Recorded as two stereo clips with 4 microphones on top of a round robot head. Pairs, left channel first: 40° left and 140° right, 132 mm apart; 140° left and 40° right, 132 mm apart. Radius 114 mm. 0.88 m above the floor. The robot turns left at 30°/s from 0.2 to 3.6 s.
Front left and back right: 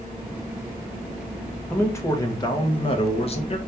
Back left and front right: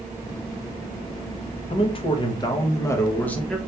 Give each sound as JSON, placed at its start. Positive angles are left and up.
{"t": 1.7, "sound": "a man speaking", "azimuth_deg": 110, "distance_m": 0.9}